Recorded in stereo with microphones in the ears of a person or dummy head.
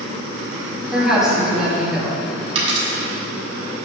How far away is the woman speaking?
About 3 m.